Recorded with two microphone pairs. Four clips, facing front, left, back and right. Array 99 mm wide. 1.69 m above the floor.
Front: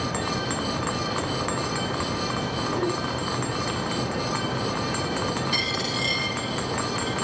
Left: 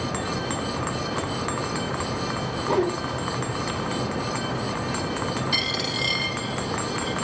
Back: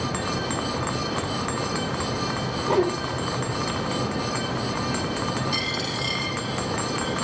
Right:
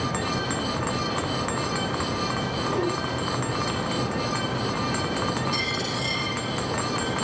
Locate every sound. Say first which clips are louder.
2.6 s a whoosh: left 4 dB, back 6 dB; 145° left, 3.5 m
5.5 s a dropped coin: even, even; 65° left, 8.5 m